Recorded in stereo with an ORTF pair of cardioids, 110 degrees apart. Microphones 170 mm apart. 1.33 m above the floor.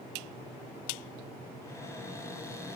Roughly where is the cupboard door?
Ahead.